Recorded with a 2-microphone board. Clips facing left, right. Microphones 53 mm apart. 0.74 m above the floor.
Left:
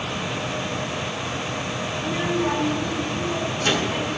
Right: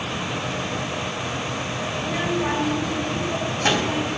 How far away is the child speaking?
About 2.5 m.